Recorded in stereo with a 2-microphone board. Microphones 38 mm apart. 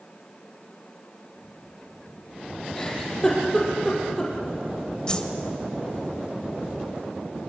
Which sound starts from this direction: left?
A whoosh, at 5.1 s.